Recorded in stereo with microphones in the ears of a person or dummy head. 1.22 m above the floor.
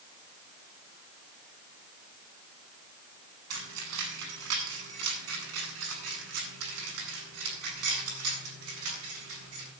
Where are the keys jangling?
90° right, 6.5 m; by 9.7 s 85° right, 15.5 m.